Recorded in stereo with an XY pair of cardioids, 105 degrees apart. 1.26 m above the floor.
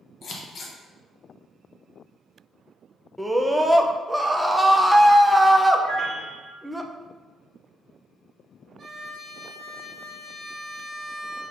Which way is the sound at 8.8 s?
45° right.